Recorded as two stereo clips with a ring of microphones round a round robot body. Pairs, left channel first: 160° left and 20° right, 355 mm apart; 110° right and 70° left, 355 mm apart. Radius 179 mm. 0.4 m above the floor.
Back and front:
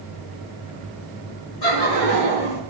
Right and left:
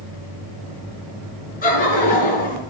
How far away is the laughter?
About 5 m.